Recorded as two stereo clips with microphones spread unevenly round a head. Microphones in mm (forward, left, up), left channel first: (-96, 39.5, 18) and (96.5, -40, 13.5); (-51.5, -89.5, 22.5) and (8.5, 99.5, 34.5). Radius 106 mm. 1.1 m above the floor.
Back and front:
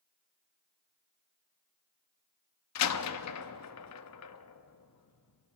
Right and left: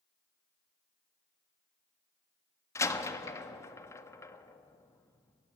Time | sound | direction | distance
2.8 | a door slam | 175° left | 1.0 m